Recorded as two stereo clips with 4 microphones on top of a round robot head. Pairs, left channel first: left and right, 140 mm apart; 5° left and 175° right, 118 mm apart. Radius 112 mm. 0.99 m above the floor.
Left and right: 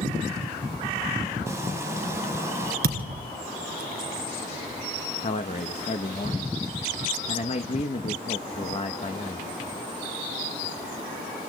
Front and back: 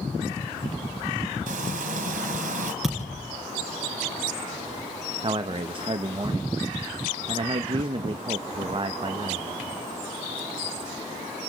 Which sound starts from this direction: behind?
Frying, at 1.5 s.